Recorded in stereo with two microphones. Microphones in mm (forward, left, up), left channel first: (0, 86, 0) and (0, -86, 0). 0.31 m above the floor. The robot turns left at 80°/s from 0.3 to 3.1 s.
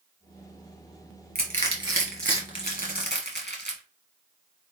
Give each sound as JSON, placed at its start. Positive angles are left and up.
{"t": 1.4, "sound": "crushing", "side_deg": -65, "distance_m": 2.0}